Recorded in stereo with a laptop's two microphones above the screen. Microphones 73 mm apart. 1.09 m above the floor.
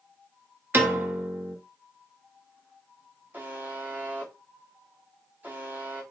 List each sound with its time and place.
0.7 s a piano: 30° right (ahead or behind), 1.2 m
3.3 s a buzzer: 25° right (ahead or behind), 1.5 m